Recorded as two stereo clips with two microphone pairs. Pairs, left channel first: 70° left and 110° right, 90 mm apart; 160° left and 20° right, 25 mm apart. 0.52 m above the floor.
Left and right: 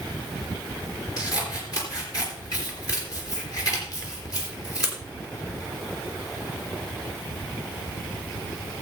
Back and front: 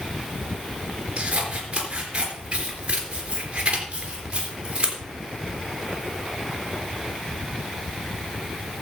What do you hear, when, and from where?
1.2 s scissors: 25° left, 3.5 m